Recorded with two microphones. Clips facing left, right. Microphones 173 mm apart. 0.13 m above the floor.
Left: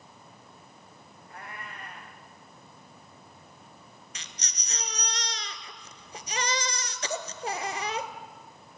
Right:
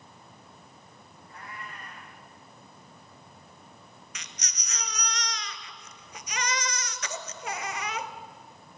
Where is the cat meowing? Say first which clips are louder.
Left 1 dB; 60° left (ahead or behind), 4 m.